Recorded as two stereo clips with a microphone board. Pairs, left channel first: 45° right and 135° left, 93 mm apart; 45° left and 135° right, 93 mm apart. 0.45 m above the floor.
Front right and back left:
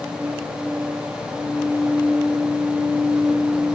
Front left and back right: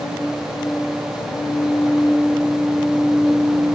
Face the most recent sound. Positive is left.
No sound to turn to.